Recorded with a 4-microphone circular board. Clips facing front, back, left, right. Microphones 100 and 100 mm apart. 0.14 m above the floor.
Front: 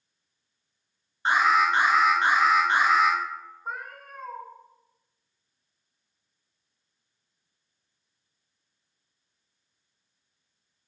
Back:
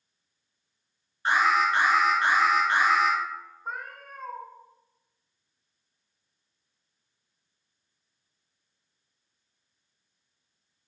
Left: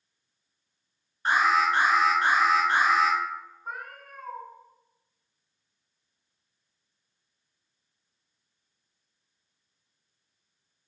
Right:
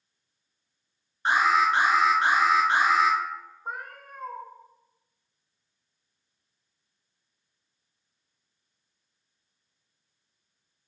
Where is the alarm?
35° right, 1.7 m.